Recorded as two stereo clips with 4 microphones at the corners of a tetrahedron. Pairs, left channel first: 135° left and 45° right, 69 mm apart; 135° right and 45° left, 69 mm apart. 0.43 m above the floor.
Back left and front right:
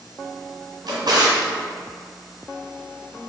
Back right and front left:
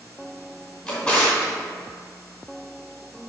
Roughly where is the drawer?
Ahead right.